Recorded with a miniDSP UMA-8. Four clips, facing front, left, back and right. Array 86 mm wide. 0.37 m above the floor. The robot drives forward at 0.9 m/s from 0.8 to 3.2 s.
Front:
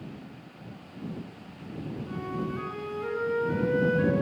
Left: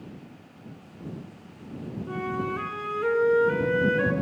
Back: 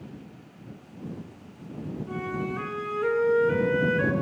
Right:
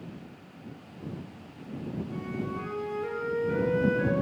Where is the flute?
105° left, 4 m; by 4.1 s 115° left, 4.5 m.